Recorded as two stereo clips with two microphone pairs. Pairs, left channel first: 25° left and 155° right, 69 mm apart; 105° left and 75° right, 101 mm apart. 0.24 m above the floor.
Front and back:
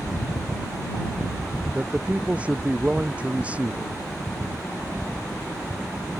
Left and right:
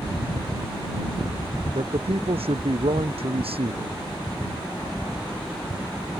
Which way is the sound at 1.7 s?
85° right.